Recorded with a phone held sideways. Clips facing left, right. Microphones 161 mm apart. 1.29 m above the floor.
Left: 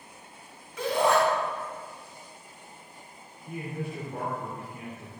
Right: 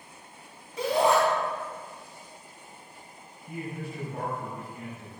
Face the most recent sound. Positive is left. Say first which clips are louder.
# left 1 dB
turn(degrees=65)  # may be behind; listen again after turning